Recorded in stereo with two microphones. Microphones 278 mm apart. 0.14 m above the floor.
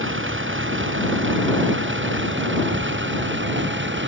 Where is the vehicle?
45° right (ahead or behind).